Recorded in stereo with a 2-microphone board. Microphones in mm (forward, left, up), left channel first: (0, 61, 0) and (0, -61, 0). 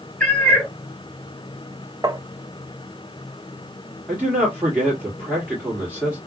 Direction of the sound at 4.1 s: 10° right (ahead or behind).